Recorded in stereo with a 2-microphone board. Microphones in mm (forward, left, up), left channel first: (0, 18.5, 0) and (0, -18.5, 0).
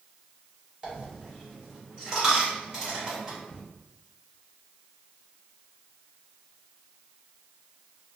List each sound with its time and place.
0.8 s a dropped coin: 20° right (ahead or behind), 1.3 m